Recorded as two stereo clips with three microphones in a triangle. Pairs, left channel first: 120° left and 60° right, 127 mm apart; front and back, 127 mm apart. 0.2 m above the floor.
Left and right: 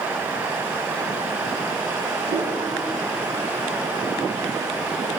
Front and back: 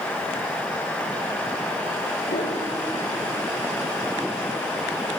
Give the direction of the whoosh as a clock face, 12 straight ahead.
1 o'clock.